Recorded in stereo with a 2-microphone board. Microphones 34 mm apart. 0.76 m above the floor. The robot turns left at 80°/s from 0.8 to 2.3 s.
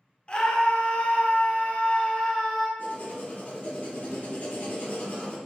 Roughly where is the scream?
Behind left.